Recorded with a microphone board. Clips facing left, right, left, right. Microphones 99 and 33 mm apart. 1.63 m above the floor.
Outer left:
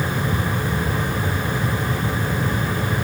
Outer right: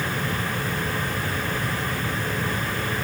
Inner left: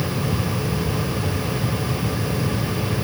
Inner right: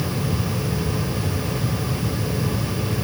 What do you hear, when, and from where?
Only background noise.